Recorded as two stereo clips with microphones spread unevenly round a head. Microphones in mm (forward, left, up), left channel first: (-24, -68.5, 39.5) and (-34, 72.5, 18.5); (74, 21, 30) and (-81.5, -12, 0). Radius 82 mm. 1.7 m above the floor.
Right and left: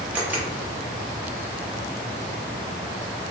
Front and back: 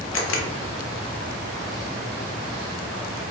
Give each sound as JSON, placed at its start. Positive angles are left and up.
{"t": 0.1, "sound": "a camera shutter", "azimuth_deg": 15, "distance_m": 0.5}